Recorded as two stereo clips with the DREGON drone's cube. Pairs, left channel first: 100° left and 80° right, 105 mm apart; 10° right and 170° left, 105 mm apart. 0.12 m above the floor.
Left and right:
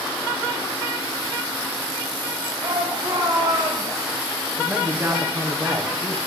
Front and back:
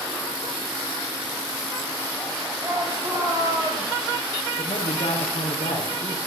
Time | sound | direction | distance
2.6 | a shout | 125° right | 8 m
4.6 | a man speaking | 20° right | 5 m